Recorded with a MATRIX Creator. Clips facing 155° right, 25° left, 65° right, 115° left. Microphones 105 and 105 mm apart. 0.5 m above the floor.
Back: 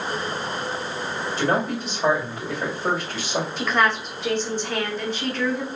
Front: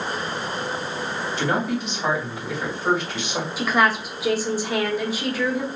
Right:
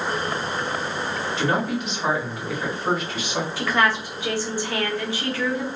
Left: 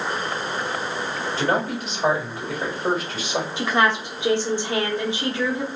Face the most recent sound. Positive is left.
turn(degrees=95)